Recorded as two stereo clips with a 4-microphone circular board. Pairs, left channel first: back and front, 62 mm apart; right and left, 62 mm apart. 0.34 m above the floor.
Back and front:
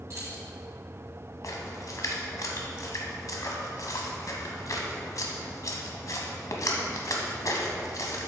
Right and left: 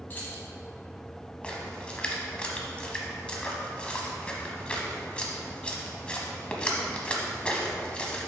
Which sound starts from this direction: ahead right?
Keys jangling, at 0.1 s.